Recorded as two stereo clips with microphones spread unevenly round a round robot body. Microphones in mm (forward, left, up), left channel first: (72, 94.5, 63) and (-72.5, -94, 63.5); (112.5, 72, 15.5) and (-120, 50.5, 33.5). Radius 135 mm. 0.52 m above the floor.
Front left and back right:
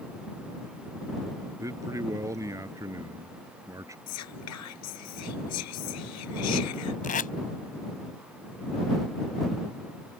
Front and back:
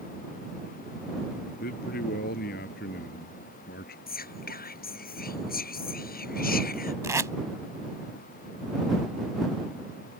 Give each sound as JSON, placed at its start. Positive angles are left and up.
{"t": 1.6, "sound": "a man speaking", "azimuth_deg": -50}
{"t": 4.1, "sound": "whispering", "azimuth_deg": 55}
{"t": 7.0, "sound": "tape being pulled", "azimuth_deg": 110}